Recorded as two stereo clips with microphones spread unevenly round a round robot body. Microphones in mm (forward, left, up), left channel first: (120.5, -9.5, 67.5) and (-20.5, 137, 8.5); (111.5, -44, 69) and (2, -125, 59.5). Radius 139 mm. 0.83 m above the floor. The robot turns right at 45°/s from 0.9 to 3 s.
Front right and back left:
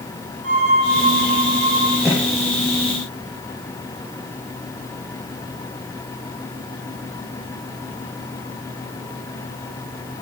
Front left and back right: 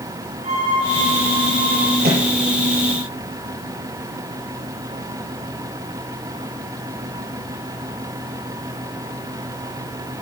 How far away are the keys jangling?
No keys jangling in this recording.